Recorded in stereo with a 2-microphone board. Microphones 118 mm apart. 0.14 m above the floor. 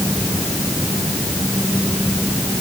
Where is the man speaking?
I don't hear a man speaking.